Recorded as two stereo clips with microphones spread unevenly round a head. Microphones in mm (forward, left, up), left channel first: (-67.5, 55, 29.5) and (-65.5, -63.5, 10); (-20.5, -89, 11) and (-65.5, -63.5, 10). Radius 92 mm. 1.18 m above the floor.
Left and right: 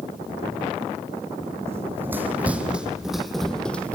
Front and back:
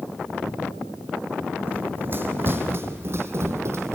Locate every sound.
1.7 s running footsteps: 160° right, 2.5 m; by 4.0 s 160° left, 1.9 m